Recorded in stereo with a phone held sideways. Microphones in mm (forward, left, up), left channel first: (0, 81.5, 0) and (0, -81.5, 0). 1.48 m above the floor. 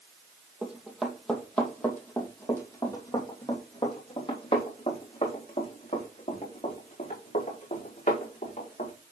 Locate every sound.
0.6 s running footsteps: 5° right (ahead or behind), 2.5 m; by 8.9 s 50° left (ahead or behind), 5.5 m